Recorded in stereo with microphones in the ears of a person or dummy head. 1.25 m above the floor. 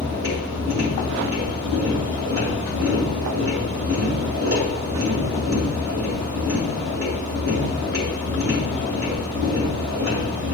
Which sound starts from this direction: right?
A machine running, at 0.0 s.